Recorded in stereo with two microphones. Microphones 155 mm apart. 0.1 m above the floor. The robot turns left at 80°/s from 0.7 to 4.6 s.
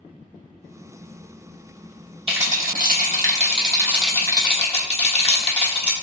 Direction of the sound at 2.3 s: 40° right.